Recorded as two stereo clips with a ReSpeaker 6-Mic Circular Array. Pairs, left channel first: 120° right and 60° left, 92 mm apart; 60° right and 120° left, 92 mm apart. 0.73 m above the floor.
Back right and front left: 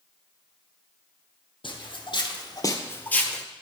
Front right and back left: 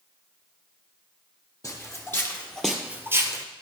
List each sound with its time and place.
1.6 s footsteps: 110° right, 1.6 m; by 3.5 s 155° left, 1.1 m